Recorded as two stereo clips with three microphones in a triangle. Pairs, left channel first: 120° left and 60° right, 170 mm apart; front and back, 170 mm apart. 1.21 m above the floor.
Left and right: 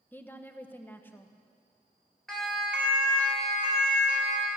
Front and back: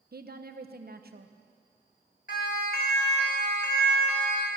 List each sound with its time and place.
0.1 s a woman speaking: 165° right, 0.9 m
2.3 s a siren: 35° left, 3 m; by 4.5 s 15° right, 3 m